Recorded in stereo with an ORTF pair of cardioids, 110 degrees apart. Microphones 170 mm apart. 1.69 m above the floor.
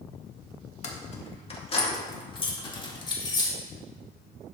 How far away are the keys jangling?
About 1.8 m.